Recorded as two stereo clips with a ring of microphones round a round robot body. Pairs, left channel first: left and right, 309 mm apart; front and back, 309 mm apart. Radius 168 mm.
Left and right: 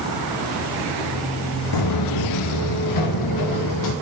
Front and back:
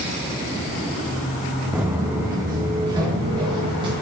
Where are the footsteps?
95° left, 1.6 m; by 3.9 s 105° left, 5 m.